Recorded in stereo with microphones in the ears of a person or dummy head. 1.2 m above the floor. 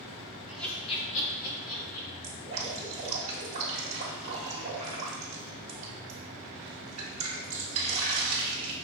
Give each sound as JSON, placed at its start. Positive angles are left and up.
{"t": 0.5, "sound": "laughter", "side_deg": -10, "distance_m": 0.7}
{"t": 2.2, "sound": "dripping", "side_deg": -35, "distance_m": 1.2}